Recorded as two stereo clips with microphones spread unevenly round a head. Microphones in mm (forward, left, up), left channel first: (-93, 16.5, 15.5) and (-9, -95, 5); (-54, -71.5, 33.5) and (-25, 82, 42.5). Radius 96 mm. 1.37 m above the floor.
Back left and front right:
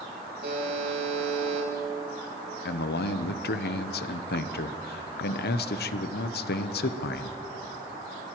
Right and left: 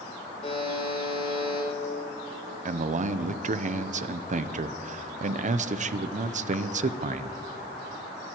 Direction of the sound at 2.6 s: 125° left.